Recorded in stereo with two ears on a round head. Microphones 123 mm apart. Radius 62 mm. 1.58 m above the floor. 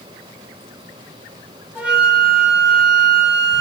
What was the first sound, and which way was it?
A flute, 10° right (ahead or behind).